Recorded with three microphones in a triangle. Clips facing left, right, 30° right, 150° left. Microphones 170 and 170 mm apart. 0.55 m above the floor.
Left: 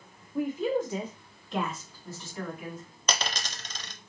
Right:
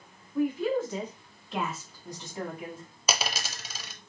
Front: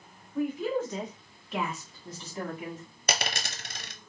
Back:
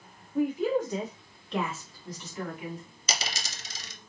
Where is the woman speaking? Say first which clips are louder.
Right 1 dB, back 3 dB; 120° left, 1.4 m; by 2.9 s 45° right, 1.6 m.